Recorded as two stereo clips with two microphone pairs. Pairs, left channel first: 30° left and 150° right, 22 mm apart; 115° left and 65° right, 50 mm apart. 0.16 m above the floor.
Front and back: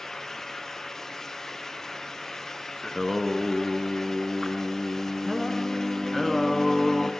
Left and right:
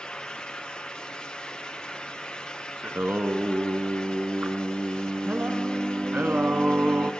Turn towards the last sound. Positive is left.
turn(degrees=-65)